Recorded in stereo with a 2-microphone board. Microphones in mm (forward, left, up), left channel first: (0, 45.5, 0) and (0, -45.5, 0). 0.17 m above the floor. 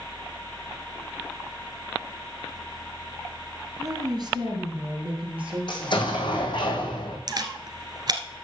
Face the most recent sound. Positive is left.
turn(degrees=-50)  # may be behind; listen again after turning